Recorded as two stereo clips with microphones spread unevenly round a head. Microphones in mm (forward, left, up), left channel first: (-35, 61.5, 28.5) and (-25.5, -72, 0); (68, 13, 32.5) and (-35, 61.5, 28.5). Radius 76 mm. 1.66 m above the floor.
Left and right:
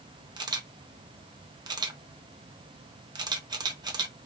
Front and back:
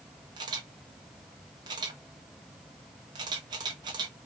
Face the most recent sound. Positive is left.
turn(degrees=-145)